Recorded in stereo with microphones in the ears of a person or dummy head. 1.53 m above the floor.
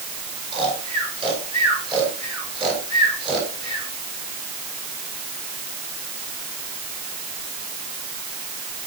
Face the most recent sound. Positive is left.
turn(degrees=-30)  # may be behind; listen again after turning